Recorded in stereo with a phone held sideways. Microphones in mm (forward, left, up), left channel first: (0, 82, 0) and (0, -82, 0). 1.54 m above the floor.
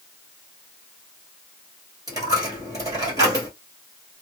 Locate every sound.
2.1 s a dropped coin: 20° right (ahead or behind), 1.7 m